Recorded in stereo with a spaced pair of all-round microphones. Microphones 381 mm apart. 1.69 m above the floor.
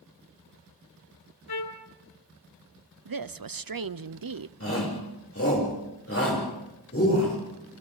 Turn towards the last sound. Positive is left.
turn(degrees=40)  # may be behind; listen again after turning